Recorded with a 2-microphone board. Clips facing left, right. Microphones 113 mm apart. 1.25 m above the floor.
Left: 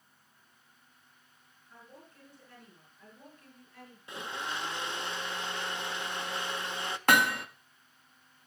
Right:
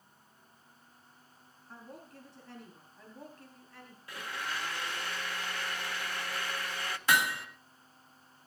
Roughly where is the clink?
I don't hear a clink.